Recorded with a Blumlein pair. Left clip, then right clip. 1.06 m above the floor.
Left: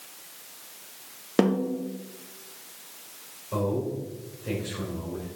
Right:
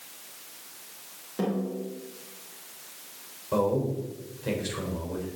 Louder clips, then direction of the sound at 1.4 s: Left 6 dB; 35° left.